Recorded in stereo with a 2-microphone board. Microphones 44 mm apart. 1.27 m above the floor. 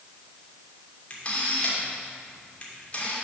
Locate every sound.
1.1 s a camera shutter: 30° left (ahead or behind), 3 m